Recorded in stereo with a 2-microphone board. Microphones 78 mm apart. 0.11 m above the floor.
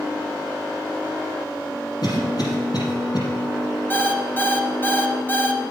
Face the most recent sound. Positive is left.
turn(degrees=30)  # may be behind; listen again after turning